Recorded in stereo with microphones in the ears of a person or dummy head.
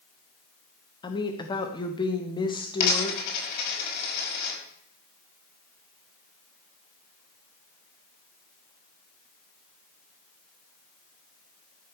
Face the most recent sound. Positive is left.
turn(degrees=55)  # may be behind; listen again after turning